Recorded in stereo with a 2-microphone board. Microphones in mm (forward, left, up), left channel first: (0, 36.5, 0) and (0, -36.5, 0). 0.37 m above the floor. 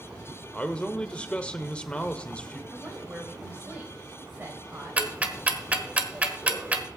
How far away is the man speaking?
About 1.0 m.